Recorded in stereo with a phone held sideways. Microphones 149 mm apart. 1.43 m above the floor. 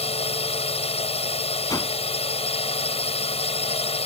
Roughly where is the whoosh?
Left.